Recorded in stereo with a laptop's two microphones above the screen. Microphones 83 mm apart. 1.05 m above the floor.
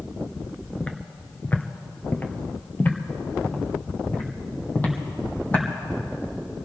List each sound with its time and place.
0.8 s footsteps: 15° left (ahead or behind), 1.0 m; by 5.6 s 20° left (ahead or behind), 3.5 m